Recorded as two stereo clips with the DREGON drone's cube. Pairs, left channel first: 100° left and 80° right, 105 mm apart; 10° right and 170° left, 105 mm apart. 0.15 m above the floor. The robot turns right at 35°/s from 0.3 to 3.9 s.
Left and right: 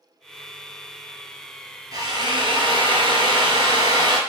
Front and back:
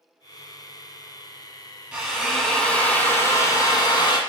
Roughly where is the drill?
Right.